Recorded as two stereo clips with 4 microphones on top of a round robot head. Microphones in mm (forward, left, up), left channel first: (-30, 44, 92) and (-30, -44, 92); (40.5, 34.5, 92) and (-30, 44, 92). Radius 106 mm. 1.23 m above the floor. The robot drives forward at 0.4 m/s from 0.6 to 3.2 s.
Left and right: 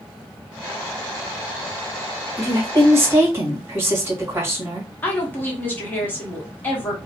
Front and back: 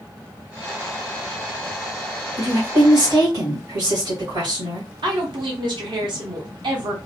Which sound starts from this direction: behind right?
A woman speaking, at 2.4 s.